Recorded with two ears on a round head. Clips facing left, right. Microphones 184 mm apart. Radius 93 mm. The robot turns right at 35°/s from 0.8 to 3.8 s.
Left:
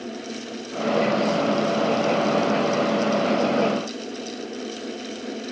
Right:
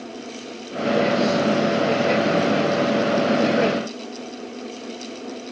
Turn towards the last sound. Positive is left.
No sound to turn to.